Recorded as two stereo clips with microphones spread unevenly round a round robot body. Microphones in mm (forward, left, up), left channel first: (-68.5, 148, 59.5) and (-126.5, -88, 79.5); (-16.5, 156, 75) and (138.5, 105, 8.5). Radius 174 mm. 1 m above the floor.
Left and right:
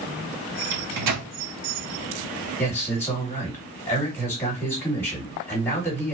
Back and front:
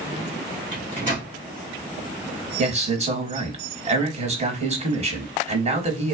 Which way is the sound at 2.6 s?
Straight ahead.